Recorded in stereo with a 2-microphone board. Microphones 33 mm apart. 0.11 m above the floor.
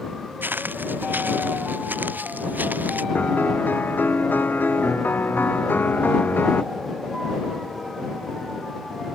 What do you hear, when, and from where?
0.4 s footsteps: 75° right (ahead or behind); by 3.0 s 60° right (ahead or behind)
3.1 s a piano: 75° left (ahead or behind)